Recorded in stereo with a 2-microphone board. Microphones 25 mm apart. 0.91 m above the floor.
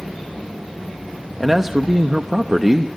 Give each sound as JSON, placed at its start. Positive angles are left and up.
{"t": 1.4, "sound": "a man speaking", "side_deg": -15, "distance_m": 0.7}